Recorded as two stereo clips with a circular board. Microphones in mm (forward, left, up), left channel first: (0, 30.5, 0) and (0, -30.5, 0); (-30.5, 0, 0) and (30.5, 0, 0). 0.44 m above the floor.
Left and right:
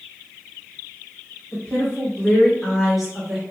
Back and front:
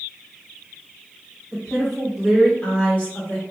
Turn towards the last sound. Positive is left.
turn(degrees=-150)